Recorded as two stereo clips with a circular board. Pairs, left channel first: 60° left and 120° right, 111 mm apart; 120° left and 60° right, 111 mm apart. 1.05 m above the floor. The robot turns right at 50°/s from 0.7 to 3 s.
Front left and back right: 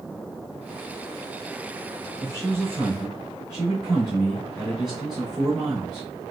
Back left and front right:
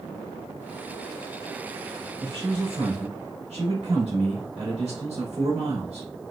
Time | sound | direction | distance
2.2 | a man speaking | 110° right | 2 m